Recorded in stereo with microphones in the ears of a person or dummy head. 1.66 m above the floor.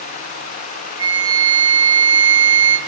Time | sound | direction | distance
1.0 | a flute | 60° right (ahead or behind) | 2.5 m